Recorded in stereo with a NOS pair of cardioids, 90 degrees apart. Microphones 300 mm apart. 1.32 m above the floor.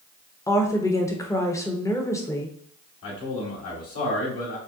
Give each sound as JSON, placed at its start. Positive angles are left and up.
{"t": 0.5, "sound": "a woman speaking", "azimuth_deg": 10, "distance_m": 0.9}
{"t": 3.0, "sound": "a man speaking", "azimuth_deg": 50, "distance_m": 1.6}